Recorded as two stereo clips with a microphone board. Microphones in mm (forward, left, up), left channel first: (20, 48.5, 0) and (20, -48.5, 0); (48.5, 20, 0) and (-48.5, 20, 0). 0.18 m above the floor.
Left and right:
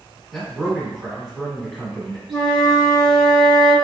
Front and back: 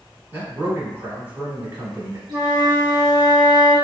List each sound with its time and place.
0.3 s a man speaking: 175° left, 1.1 m
2.3 s a flute: 175° right, 1.0 m